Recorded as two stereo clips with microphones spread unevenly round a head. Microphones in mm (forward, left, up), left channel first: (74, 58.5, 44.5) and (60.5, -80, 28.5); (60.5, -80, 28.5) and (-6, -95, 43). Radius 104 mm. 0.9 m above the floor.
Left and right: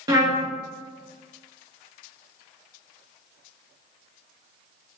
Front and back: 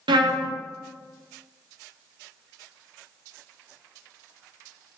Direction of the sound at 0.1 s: 165° right.